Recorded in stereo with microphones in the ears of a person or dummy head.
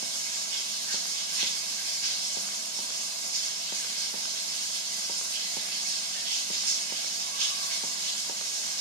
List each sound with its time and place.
0.0 s running water: 60° right (ahead or behind), 1.2 m